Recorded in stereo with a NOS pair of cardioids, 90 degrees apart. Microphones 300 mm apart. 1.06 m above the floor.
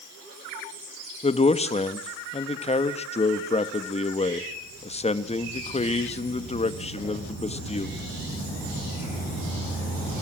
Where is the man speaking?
20° left, 1.6 m.